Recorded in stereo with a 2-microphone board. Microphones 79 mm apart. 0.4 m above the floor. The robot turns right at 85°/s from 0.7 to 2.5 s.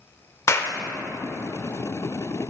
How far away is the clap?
About 0.6 m.